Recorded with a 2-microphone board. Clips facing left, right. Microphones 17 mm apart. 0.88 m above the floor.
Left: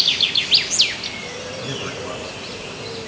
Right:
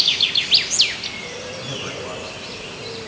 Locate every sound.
1.6 s a man speaking: centre (ahead or behind), 6.5 m; by 3.0 s 10° right (ahead or behind), 6.5 m